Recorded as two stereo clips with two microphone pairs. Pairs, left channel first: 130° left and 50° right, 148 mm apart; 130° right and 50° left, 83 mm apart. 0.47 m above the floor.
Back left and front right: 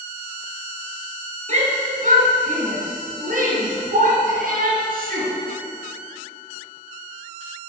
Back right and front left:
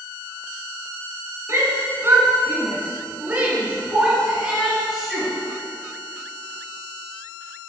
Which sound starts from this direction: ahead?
A shout, at 1.5 s.